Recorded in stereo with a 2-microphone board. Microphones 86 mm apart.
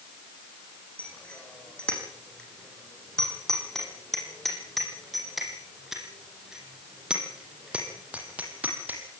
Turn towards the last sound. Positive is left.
turn(degrees=-20)  # may be behind; listen again after turning